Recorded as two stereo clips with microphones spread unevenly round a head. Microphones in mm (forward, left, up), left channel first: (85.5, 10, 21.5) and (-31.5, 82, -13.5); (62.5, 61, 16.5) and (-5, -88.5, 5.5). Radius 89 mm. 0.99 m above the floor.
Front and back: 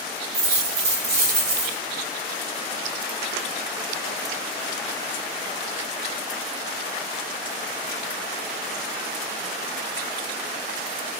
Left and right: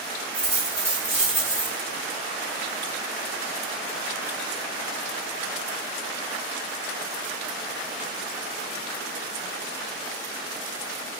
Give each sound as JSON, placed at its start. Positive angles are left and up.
{"t": 0.3, "sound": "a dropped coin", "azimuth_deg": 170, "distance_m": 1.2}